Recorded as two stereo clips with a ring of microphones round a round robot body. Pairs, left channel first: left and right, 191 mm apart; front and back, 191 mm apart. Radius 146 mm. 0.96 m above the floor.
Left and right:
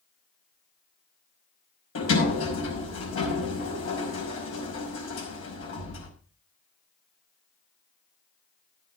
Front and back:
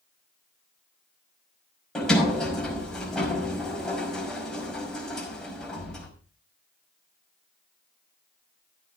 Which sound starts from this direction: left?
A sliding door, at 1.9 s.